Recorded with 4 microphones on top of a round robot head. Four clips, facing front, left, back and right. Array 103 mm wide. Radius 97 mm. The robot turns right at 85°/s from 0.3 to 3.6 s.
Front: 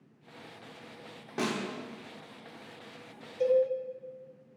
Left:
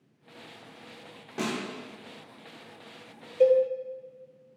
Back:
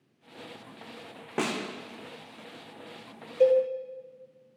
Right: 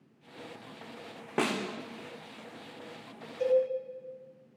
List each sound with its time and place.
1.4 s a snare drum: 130° right, 1.2 m; by 1.6 s 110° right, 1.2 m
3.4 s a cowbell: 125° left, 1.2 m; by 3.6 s 145° left, 1.2 m